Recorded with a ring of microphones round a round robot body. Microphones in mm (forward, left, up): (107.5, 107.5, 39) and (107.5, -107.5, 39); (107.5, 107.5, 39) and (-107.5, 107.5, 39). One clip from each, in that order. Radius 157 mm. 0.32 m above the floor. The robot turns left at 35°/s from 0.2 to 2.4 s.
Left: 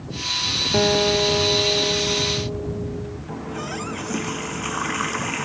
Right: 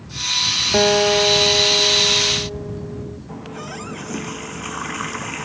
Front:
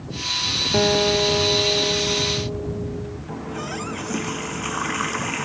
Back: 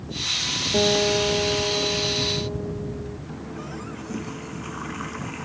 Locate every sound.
0.7 s a guitar: 75° right; by 3.2 s 130° right
3.3 s a running tap: 5° left